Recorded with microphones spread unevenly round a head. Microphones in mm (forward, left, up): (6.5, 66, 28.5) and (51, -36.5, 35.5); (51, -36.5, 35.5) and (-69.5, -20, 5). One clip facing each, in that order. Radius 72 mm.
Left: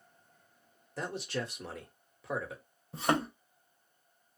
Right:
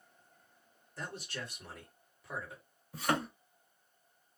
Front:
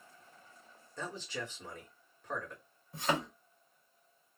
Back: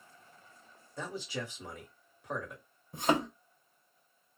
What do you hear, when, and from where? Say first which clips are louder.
1.0 s a man speaking: left 7 dB, back 2 dB; 95° left, 1.3 m
2.9 s a thud: left 3 dB, back 4 dB; 85° left, 0.8 m